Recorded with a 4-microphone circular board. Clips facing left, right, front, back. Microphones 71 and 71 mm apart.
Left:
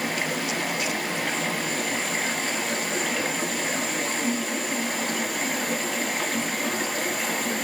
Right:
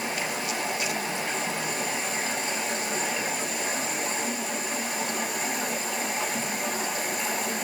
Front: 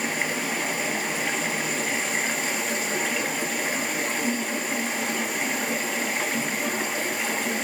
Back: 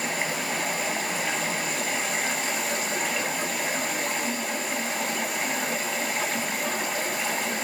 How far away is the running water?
About 1.6 m.